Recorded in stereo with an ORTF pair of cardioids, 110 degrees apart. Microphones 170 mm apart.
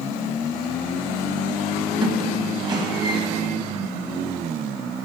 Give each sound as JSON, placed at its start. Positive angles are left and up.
{"t": 2.0, "sound": "a squeak", "azimuth_deg": -25, "distance_m": 1.3}